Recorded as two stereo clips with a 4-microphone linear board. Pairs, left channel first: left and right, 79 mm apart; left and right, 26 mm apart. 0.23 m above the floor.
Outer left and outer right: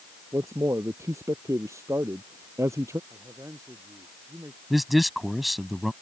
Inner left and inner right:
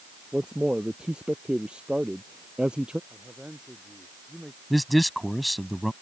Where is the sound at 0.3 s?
40° right (ahead or behind).